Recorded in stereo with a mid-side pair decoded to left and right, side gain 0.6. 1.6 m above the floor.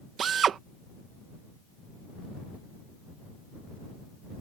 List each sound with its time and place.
0.2 s a drill: 45° right